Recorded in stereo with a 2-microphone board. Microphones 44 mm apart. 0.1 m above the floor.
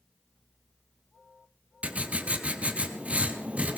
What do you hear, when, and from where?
1.8 s writing: 30° right (ahead or behind), 1.1 m